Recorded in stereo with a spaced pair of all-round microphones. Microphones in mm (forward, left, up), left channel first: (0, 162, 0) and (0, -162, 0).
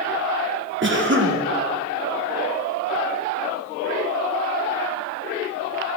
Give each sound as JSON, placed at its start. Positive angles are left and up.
{"t": 0.8, "sound": "a cough", "side_deg": -35, "distance_m": 1.2}